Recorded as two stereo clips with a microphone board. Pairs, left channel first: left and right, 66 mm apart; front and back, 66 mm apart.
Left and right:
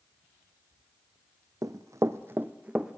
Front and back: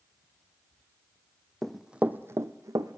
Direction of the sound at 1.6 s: 80° right.